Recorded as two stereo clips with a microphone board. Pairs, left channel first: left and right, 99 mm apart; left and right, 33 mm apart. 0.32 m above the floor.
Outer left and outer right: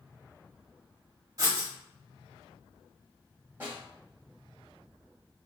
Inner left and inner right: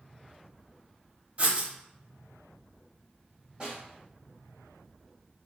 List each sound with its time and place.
1.4 s writing: 40° right (ahead or behind), 1.0 m
3.6 s a snare drum: 25° right (ahead or behind), 1.4 m